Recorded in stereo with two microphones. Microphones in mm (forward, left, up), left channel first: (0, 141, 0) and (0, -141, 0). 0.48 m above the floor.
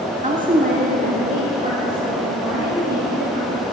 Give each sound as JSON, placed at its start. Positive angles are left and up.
{"t": 0.2, "sound": "a woman speaking", "side_deg": -25, "distance_m": 1.2}